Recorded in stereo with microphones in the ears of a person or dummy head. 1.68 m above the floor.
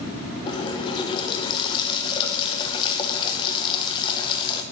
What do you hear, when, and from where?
0.5 s a running tap: 30° left (ahead or behind), 0.9 m